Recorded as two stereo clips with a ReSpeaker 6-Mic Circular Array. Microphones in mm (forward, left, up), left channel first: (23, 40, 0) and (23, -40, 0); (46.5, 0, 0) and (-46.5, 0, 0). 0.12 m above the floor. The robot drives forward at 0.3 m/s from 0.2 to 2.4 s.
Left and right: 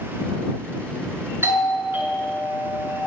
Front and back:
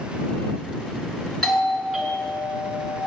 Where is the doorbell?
90° right, 1.8 m; by 3.0 s 110° right, 1.8 m.